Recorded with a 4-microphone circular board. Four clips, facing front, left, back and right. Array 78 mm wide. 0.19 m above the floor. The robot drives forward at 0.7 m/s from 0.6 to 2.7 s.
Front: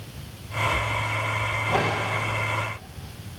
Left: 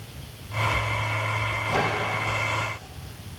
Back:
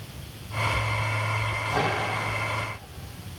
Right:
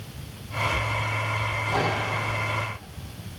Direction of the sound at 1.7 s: 20° left.